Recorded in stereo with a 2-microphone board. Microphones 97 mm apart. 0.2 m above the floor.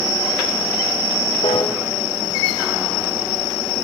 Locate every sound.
1.4 s a piano: 85° left, 3 m